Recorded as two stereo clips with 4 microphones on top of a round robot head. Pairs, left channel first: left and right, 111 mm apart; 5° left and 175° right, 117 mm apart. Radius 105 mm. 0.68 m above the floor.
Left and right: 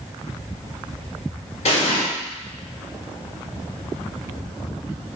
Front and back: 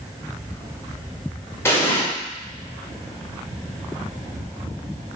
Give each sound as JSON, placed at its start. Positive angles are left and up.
{"t": 1.6, "sound": "an explosion", "azimuth_deg": 75, "distance_m": 1.6}